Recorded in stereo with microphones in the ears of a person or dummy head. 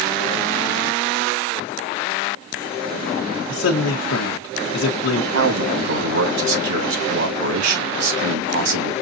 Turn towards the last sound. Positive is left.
turn(degrees=-75)  # may be behind; listen again after turning